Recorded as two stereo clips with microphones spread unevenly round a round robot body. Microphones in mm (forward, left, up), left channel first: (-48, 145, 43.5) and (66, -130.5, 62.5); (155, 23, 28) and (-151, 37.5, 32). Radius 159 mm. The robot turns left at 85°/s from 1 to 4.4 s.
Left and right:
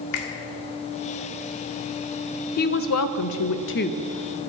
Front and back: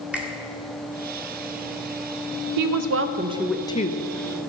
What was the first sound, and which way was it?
A finger snap, 90° left.